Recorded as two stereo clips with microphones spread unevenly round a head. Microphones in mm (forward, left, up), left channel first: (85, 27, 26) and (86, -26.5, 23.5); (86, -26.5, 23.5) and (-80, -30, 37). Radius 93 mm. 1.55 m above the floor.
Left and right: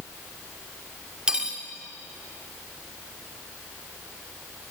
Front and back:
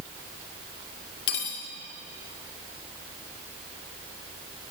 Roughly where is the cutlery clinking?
Ahead.